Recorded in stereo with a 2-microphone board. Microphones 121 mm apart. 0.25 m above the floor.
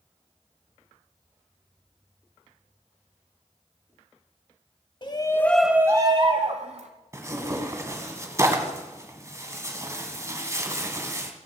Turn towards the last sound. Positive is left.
turn(degrees=-25)  # may be behind; listen again after turning